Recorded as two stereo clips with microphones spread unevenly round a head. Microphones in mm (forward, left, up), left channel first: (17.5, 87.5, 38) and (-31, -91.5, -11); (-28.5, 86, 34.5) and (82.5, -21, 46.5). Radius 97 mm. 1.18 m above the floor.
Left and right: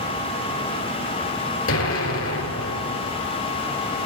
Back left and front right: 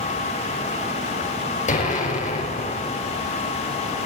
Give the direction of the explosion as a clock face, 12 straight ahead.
9 o'clock.